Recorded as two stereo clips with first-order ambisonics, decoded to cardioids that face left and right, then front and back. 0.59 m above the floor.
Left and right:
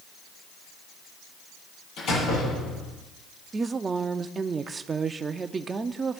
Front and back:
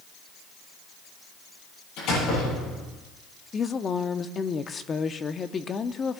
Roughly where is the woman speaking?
Ahead right.